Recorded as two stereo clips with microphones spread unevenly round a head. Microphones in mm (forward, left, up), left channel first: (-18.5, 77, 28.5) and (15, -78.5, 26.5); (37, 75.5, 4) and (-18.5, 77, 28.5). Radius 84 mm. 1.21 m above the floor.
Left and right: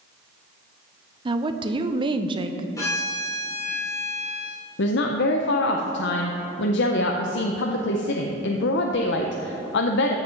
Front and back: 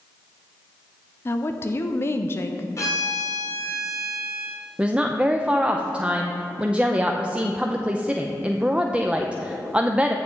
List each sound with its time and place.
1.2 s a woman speaking: 20° right, 0.7 m
2.8 s a violin: 30° left, 3 m
4.8 s a woman speaking: 100° left, 0.7 m